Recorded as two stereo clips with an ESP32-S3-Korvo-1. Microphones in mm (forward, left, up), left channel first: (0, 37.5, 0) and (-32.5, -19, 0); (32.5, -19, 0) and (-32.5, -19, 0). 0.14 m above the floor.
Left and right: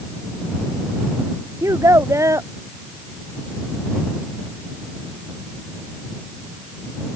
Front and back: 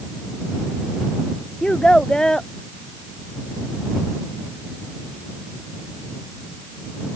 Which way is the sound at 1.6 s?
80° right.